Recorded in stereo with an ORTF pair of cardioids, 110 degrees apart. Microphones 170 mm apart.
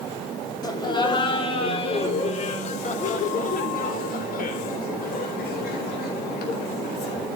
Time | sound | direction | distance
0.6 | laughter | 25° left | 3 m